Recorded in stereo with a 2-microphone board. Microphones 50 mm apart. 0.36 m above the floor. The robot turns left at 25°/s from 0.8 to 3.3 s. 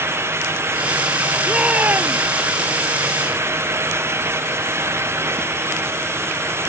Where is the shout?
25° right (ahead or behind); by 2.2 s 40° right (ahead or behind).